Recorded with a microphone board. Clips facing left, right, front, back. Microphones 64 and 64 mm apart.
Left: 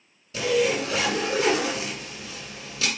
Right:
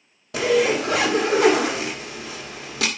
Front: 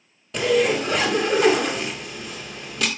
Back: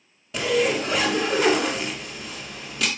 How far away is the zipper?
About 1.7 m.